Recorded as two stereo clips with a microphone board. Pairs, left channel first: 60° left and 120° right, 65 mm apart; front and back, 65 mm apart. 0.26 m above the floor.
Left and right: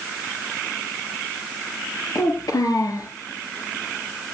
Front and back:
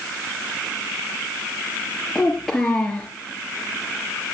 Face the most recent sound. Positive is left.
turn(degrees=85)